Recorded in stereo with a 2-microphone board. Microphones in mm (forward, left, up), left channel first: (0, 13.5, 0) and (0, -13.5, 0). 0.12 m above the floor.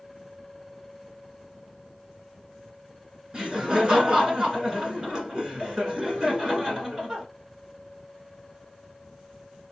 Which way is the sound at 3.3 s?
35° right (ahead or behind).